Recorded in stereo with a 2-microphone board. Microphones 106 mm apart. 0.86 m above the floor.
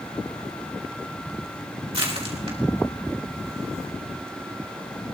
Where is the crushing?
70° right (ahead or behind), 2.5 m.